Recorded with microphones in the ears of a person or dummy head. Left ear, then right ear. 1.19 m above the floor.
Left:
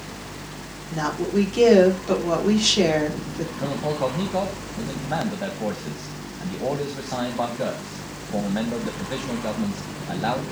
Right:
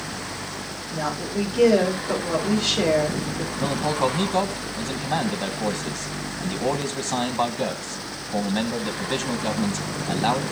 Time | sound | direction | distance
0.9 | a woman speaking | 75° left (ahead or behind) | 4 m
3.6 | a man speaking | 20° right (ahead or behind) | 1.1 m